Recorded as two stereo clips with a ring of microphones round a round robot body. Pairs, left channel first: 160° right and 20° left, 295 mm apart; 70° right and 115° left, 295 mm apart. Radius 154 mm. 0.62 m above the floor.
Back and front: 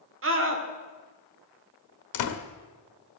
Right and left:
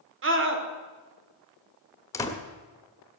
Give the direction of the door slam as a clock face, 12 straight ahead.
5 o'clock.